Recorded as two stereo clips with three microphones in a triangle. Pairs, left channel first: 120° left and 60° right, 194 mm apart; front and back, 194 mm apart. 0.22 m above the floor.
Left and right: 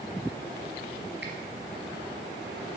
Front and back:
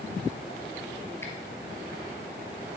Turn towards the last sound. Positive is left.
turn(degrees=-75)